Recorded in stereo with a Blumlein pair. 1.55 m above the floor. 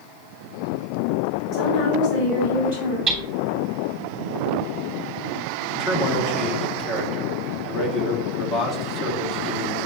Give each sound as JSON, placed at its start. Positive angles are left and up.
{"t": 1.5, "sound": "a woman speaking", "azimuth_deg": 30, "distance_m": 3.0}
{"t": 3.1, "sound": "hammering", "azimuth_deg": -20, "distance_m": 3.0}
{"t": 5.7, "sound": "a man speaking", "azimuth_deg": 25, "distance_m": 1.7}